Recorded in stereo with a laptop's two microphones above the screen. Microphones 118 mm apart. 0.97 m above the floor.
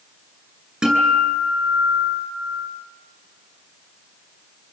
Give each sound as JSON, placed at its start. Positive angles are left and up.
{"t": 0.8, "sound": "a guitar", "side_deg": -5, "distance_m": 8.5}